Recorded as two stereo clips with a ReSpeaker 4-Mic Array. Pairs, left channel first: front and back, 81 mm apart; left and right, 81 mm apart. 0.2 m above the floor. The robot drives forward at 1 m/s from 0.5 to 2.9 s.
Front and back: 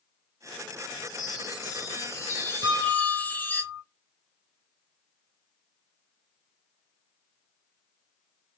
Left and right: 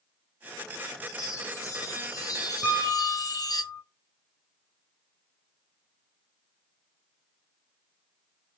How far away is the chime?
About 3.5 m.